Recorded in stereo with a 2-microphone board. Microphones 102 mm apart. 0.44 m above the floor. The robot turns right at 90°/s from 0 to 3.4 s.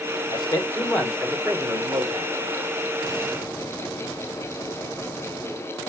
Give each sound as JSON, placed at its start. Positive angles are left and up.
{"t": 0.3, "sound": "a man speaking", "azimuth_deg": 110, "distance_m": 1.8}